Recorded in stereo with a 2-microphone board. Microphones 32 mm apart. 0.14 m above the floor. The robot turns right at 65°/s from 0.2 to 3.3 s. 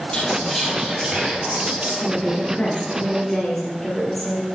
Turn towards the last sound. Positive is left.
turn(degrees=175)